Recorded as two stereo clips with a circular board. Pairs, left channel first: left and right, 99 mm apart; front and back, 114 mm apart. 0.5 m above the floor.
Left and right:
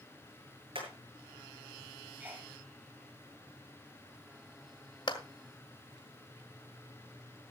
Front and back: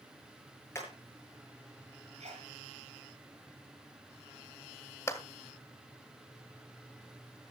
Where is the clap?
60° left, 1.9 m.